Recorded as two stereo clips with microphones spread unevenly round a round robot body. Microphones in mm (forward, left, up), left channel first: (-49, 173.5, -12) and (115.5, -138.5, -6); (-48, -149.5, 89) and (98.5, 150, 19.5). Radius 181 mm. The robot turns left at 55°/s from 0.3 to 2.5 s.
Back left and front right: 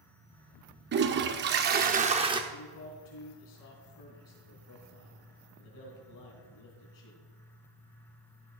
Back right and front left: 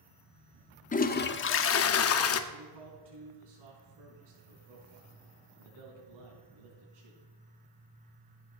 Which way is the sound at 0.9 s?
50° right.